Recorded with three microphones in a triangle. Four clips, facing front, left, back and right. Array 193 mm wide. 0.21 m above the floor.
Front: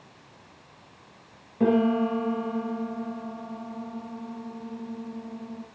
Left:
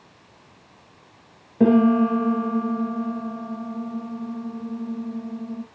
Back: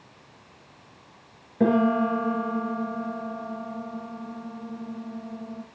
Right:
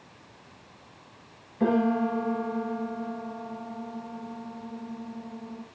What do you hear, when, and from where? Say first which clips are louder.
1.6 s a piano: left 8 dB, back 1 dB; 105° left, 2.5 m